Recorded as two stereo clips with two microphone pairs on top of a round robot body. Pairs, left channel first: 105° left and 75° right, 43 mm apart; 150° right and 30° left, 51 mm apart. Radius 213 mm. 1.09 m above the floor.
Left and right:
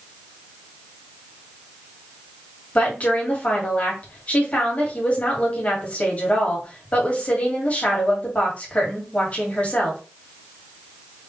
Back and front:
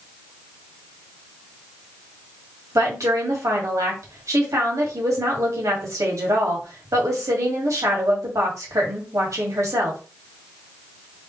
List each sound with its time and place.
2.8 s a woman speaking: 45° left, 2 m